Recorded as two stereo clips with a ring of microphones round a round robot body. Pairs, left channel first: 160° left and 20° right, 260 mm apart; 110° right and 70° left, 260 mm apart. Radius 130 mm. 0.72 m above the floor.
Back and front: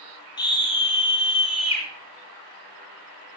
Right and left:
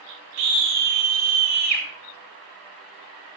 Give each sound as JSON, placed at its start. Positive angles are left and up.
{"t": 0.4, "sound": "a scream", "azimuth_deg": 85, "distance_m": 9.5}